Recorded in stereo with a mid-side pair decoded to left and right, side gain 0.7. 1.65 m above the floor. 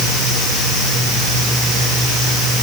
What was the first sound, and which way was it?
Only background noise.